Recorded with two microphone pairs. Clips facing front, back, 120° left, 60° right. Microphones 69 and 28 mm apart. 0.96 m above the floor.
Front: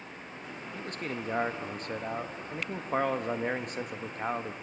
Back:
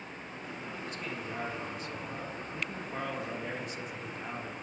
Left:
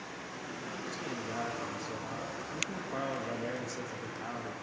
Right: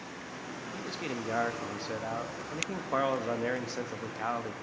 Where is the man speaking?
25° right, 1.6 m.